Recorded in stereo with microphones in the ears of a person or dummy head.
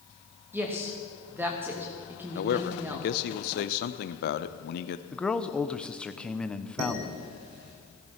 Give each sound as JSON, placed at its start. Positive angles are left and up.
{"t": 0.5, "sound": "a woman speaking", "side_deg": -10, "distance_m": 2.5}
{"t": 2.4, "sound": "a man speaking", "side_deg": 55, "distance_m": 0.8}
{"t": 5.1, "sound": "a man speaking", "side_deg": 5, "distance_m": 0.8}
{"t": 6.8, "sound": "dishes clattering", "side_deg": -55, "distance_m": 3.5}